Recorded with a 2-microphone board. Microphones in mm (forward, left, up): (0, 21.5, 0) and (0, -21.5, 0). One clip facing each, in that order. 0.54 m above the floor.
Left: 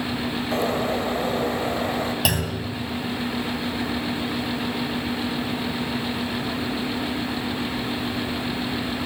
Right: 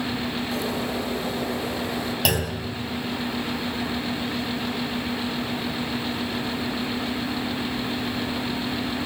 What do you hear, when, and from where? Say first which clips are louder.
0.5 s a bird: left 7 dB; 40° left (ahead or behind), 3.5 m
2.2 s a clunk: even; centre (ahead or behind), 3.5 m